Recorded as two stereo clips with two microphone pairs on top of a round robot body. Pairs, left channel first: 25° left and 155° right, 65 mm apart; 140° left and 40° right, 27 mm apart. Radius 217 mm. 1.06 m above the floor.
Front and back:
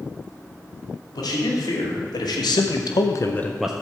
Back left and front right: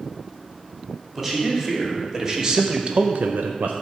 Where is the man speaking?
35° left, 2.5 m; by 3.7 s 75° right, 0.6 m.